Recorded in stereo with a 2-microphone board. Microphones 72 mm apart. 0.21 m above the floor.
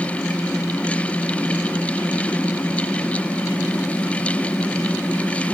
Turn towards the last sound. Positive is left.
No sound to turn to.